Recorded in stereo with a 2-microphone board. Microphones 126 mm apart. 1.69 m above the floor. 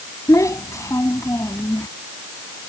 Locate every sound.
0.3 s a child speaking: 25° left (ahead or behind)